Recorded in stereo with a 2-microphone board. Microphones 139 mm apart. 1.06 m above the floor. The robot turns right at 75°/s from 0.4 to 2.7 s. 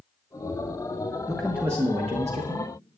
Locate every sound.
1.3 s a man speaking: 165° left, 1.0 m; by 2.7 s 85° right, 1.0 m